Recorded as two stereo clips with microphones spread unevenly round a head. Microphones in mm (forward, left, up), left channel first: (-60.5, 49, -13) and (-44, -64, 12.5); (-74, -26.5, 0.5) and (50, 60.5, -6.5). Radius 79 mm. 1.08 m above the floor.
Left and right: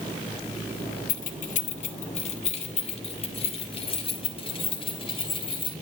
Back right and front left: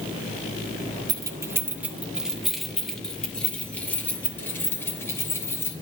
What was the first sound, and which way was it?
Keys jangling, 100° left.